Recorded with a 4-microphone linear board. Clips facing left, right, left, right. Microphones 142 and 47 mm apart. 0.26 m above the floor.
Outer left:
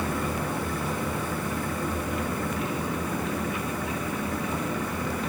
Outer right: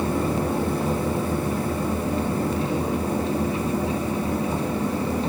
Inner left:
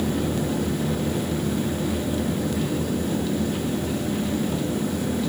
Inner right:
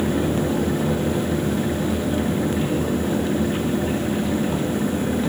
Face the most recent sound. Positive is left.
No sound to turn to.